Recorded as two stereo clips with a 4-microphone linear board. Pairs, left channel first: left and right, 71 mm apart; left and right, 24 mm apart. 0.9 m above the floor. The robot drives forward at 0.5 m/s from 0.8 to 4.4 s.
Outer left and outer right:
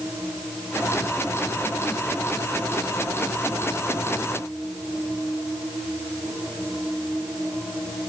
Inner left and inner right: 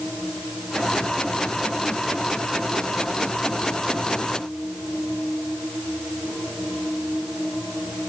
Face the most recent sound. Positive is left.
No sound to turn to.